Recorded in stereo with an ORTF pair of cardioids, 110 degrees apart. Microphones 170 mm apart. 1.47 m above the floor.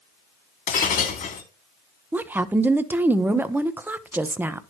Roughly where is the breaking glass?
Ahead left.